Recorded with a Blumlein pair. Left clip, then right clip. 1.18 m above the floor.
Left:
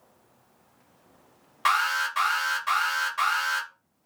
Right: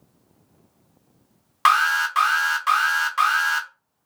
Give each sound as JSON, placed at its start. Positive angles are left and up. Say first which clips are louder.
{"t": 1.6, "sound": "an alarm", "louder": "right 6 dB", "azimuth_deg": -30, "distance_m": 0.8}